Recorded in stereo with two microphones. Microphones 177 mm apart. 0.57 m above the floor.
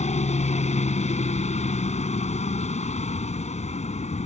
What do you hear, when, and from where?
0.0 s a helicopter: 45° left (ahead or behind)